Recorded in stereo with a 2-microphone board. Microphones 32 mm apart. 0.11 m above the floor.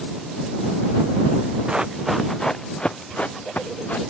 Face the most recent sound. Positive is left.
turn(degrees=50)  # may be behind; listen again after turning